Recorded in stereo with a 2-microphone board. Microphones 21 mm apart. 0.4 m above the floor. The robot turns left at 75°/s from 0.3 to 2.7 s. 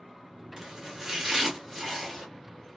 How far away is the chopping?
About 1.7 m.